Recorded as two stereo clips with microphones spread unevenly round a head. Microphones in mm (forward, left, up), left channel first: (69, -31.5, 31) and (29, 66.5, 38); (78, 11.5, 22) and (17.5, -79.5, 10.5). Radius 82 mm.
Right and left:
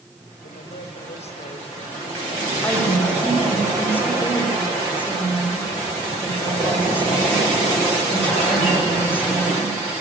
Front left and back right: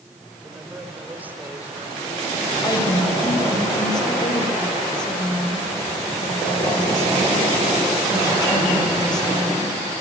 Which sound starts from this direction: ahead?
A woman speaking, at 2.6 s.